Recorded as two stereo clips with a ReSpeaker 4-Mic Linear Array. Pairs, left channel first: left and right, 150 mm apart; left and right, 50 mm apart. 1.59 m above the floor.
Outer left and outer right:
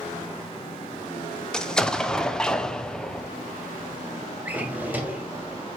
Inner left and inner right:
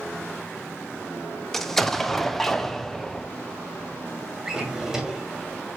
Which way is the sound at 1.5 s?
5° left (ahead or behind).